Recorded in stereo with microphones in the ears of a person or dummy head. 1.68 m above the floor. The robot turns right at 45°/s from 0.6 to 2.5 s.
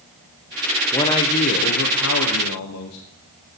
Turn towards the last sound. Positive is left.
turn(degrees=90)